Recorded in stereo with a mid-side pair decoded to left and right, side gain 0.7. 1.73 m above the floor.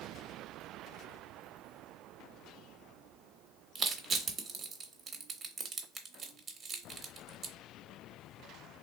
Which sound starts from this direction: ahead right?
Crushing, at 3.8 s.